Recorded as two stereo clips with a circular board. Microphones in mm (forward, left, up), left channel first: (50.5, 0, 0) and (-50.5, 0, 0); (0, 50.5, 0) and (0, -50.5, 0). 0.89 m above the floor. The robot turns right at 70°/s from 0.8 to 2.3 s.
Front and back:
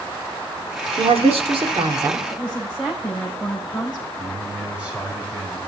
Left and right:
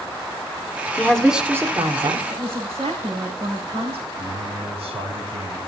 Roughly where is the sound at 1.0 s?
Behind.